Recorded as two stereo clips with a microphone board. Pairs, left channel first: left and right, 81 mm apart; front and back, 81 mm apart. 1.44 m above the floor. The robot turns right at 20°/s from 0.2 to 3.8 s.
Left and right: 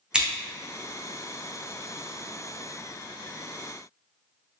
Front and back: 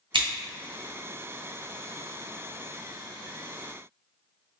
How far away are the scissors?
About 0.7 m.